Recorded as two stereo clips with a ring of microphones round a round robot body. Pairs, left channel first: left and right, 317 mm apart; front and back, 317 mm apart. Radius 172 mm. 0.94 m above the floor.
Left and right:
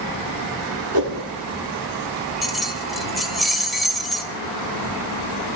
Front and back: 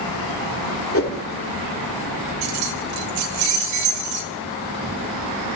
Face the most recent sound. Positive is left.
turn(degrees=180)